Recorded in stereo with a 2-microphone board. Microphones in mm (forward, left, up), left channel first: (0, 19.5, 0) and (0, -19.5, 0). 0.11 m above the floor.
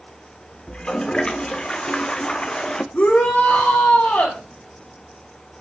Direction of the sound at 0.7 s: 25° left (ahead or behind).